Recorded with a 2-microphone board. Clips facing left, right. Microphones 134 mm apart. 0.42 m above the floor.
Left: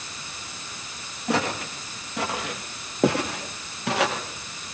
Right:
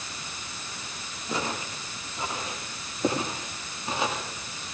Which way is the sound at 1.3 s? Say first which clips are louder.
Left 6 dB; 70° left (ahead or behind).